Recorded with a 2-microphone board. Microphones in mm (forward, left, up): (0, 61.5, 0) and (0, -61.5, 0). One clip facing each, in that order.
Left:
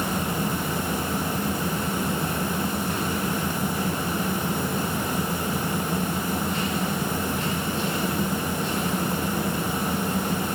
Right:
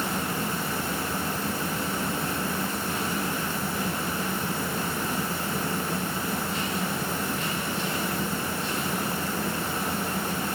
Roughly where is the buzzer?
I don't hear a buzzer.